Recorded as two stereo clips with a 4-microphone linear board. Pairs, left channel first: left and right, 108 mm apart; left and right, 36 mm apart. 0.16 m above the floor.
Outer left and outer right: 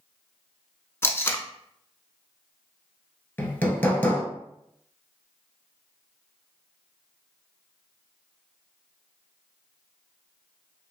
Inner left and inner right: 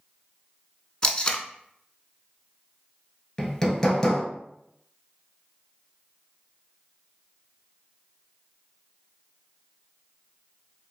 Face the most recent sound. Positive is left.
turn(degrees=20)  # may be behind; listen again after turning